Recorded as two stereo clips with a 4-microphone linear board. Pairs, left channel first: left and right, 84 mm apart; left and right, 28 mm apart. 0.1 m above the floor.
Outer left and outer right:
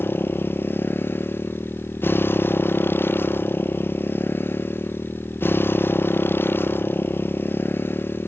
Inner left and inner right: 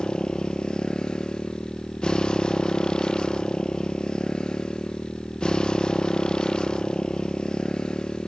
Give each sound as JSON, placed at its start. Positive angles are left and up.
{"t": 0.0, "sound": "a motorcycle", "side_deg": 25}